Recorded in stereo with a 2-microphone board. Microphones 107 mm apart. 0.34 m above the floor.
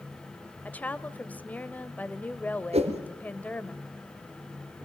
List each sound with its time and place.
0.7 s a woman speaking: 15° left (ahead or behind), 1.1 m
2.7 s a whoosh: 80° right, 3 m